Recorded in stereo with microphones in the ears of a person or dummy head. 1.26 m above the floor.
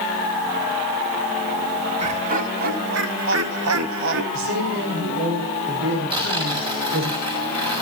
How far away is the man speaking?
About 6 m.